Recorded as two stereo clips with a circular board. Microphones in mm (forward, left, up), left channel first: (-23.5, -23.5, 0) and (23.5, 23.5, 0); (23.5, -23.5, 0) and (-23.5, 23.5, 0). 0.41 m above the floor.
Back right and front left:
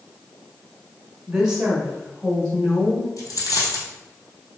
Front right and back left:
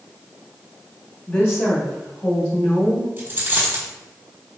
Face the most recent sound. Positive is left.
turn(degrees=-165)